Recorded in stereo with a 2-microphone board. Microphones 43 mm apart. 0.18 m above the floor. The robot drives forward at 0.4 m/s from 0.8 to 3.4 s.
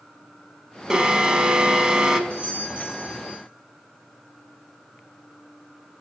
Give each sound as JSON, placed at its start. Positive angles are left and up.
{"t": 0.9, "sound": "an alarm", "side_deg": -20, "distance_m": 0.8}
{"t": 2.3, "sound": "a doorbell", "side_deg": -30, "distance_m": 2.5}